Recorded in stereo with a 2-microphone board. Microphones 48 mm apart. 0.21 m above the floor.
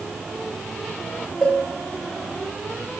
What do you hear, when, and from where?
1.4 s a cowbell: 10° left (ahead or behind), 3 m